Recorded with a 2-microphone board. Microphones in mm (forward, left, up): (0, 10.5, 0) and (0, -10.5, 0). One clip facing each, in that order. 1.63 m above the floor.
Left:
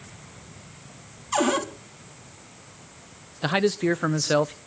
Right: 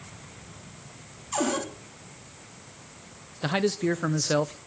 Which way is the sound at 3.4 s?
15° left (ahead or behind).